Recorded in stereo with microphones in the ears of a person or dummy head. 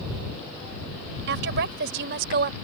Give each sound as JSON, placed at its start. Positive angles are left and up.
{"t": 1.3, "sound": "a woman speaking", "side_deg": -65}